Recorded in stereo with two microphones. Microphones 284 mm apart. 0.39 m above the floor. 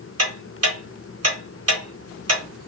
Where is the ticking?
60° right (ahead or behind), 1.2 m.